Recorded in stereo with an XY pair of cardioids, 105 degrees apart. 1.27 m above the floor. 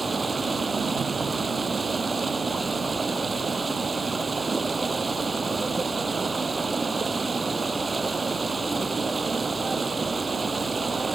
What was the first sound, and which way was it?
Running water, 25° right.